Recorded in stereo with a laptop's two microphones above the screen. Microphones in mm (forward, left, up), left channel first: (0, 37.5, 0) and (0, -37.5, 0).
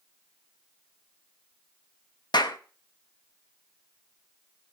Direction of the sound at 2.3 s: 70° left (ahead or behind).